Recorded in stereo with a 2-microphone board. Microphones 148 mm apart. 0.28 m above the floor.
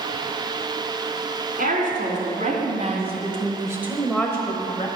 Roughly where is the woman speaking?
Right.